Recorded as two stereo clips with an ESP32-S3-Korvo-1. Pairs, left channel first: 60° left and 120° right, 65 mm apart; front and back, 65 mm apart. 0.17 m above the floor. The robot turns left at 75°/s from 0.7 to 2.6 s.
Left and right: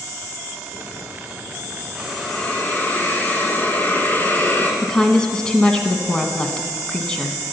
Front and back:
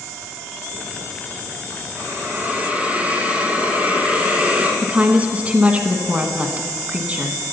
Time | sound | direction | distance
2.0 | a hiss | 165° left | 1.8 m
4.8 | a woman speaking | 130° left | 1.1 m